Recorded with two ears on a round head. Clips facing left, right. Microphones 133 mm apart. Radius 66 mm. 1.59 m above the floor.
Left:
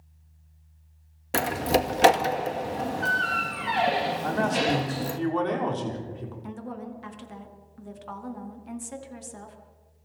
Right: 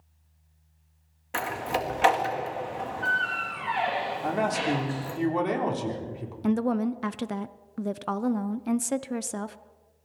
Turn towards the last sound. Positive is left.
turn(degrees=-75)  # may be behind; listen again after turning